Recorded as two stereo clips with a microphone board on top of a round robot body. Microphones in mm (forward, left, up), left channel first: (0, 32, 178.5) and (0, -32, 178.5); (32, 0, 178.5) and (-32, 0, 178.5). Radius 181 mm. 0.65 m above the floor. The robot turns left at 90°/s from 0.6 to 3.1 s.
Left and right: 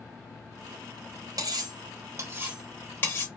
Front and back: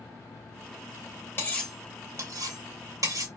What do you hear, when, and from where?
1.4 s cutlery clinking: 60° right, 1.0 m; by 3.3 s 145° left, 1.0 m